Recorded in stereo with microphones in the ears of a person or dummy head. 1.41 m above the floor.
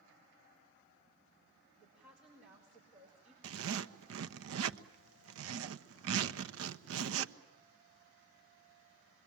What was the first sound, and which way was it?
A woman speaking, 10° right (ahead or behind).